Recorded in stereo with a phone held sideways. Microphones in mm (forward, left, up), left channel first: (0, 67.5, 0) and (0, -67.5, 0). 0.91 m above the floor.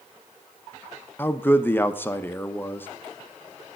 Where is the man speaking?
15° left (ahead or behind), 0.6 m.